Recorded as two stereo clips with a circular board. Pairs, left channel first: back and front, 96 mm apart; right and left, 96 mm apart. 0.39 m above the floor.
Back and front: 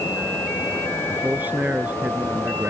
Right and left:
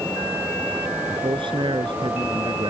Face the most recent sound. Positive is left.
turn(degrees=70)